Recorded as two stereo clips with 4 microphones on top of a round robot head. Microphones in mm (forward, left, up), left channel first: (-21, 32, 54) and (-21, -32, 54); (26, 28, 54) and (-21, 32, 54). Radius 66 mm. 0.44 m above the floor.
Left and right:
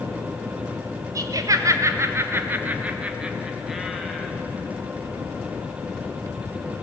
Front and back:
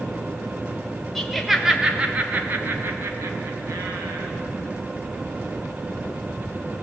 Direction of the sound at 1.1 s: 85° right.